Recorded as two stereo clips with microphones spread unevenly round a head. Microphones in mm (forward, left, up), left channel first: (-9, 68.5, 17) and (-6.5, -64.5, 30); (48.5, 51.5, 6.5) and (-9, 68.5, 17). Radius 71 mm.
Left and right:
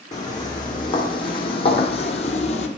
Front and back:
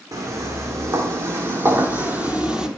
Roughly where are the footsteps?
Behind left.